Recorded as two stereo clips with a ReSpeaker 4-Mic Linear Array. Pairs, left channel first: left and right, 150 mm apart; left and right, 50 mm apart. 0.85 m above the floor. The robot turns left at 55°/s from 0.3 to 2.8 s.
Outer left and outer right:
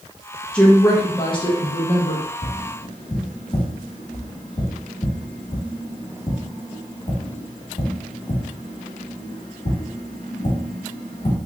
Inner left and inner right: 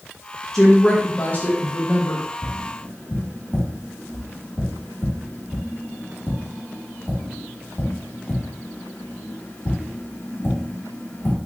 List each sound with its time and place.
0.5 s a woman speaking: 170° left, 0.6 m; by 2.2 s 80° left, 0.6 m
2.4 s tapping: 65° left (ahead or behind), 1.2 m; by 11.4 s 55° left (ahead or behind), 1.2 m